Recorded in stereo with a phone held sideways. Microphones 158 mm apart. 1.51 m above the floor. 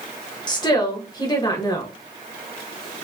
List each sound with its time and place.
0.5 s a woman speaking: 30° left (ahead or behind), 1.4 m